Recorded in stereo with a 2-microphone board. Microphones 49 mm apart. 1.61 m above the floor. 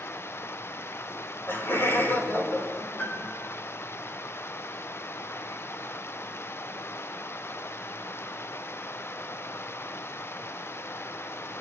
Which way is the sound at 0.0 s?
55° left (ahead or behind).